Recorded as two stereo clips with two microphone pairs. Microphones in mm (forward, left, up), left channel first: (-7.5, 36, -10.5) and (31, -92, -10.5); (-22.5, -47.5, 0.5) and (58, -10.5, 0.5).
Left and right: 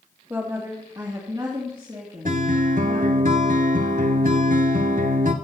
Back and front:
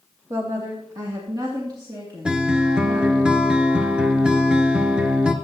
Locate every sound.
0.3 s a woman speaking: 15° right, 1.3 m; by 3.2 s 20° right, 4.5 m
2.2 s a guitar: 55° right, 1.0 m